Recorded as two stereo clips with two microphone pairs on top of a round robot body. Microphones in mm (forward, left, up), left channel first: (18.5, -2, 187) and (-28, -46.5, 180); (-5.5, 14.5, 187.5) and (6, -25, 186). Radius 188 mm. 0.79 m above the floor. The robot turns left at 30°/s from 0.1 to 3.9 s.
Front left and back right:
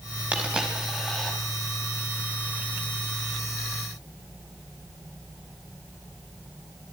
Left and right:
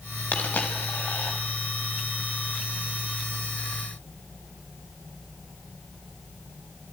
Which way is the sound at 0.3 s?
155° left.